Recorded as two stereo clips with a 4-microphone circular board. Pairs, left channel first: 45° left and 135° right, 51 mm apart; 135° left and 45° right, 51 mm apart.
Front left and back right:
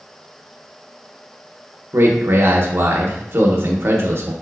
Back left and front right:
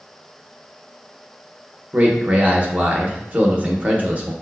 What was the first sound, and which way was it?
A man speaking, 105° right.